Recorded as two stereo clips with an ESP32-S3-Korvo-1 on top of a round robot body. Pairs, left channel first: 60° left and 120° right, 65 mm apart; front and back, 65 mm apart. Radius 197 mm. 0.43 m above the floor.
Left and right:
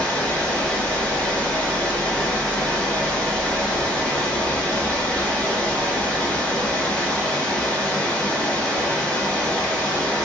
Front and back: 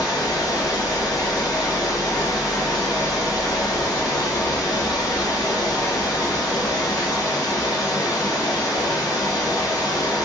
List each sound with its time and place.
0.0 s running water: 15° right, 1.9 m